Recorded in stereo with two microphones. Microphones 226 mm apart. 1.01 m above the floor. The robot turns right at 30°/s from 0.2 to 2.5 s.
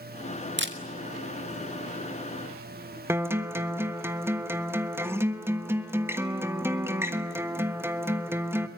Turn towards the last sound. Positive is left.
turn(degrees=-10)  # may be behind; listen again after turning